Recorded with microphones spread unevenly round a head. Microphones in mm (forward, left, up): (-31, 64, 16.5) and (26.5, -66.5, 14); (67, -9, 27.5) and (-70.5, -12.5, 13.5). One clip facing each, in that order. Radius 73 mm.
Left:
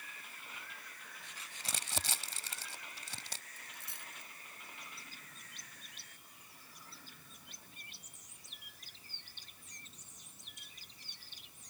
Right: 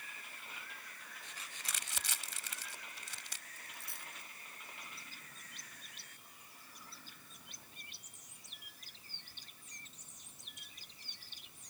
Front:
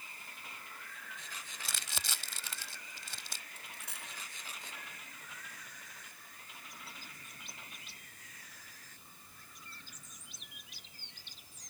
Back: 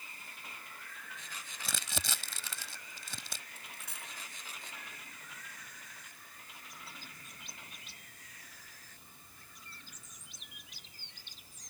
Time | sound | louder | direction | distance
1.6 | crumpling | left 6 dB, back 5 dB | 170° left | ?
3.6 | a dropped coin | even, even | 175° right | ?